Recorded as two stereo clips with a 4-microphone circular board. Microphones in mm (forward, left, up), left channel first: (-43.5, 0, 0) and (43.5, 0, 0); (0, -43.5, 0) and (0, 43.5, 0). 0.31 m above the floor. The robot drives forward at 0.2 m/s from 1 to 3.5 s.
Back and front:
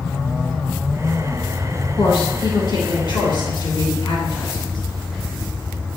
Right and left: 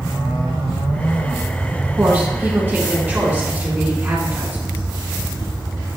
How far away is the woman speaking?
About 2.5 m.